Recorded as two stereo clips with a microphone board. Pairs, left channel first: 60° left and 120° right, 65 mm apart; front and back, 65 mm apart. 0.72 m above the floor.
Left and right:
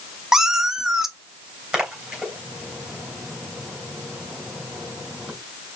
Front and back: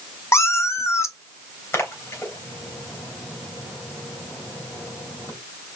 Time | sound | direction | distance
0.3 | a cat meowing | 40° right | 0.7 m
1.7 | a splash | 45° right | 2.5 m